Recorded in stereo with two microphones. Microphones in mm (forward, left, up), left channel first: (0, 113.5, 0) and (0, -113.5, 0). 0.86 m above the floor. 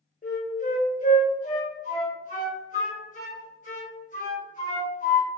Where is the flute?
35° left (ahead or behind), 0.9 m.